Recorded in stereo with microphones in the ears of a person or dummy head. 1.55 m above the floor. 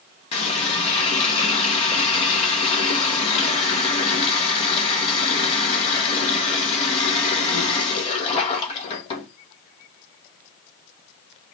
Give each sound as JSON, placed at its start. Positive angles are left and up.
{"t": 0.3, "sound": "a running tap", "side_deg": 35, "distance_m": 0.9}